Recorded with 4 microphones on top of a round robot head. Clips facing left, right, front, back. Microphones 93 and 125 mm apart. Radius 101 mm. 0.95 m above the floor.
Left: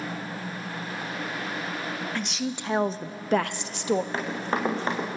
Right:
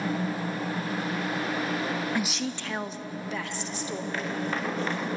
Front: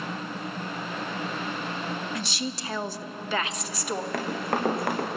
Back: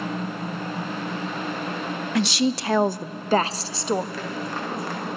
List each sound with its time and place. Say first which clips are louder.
2.1 s a woman speaking: right 1 dB, back 10 dB; 170° right, 0.7 m; by 4.0 s 115° left, 1.2 m
4.1 s running footsteps: left 2 dB, front 2 dB; 30° left, 4.5 m